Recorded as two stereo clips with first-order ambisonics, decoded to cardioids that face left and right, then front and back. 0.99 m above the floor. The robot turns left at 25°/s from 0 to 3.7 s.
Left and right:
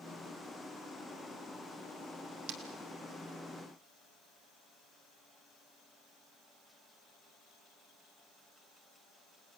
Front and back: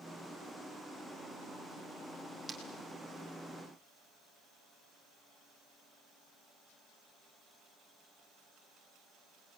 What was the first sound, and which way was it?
Breaking glass, 100° right.